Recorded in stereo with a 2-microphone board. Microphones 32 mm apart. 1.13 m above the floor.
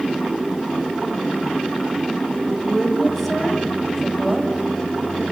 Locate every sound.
2.5 s a woman speaking: 5° left (ahead or behind), 6.5 m